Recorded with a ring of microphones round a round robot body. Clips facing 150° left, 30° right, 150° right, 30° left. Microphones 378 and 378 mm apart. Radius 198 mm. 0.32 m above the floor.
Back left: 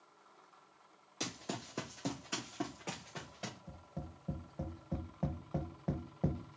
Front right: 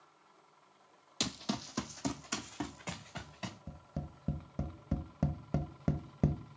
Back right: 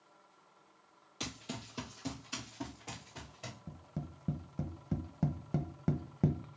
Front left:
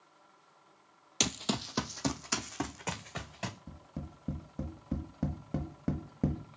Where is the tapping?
70° right, 0.9 m.